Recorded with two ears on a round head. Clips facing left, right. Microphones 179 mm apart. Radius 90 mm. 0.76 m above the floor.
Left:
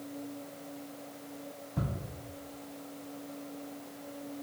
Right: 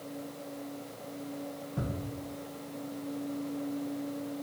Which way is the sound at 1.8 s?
10° left (ahead or behind).